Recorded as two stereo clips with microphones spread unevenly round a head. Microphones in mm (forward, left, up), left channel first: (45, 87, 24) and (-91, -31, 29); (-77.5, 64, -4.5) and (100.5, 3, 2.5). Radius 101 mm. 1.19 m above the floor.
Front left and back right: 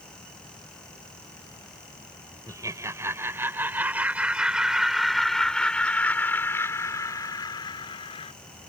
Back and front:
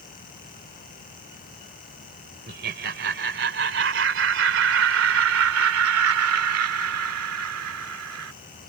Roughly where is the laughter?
Ahead right.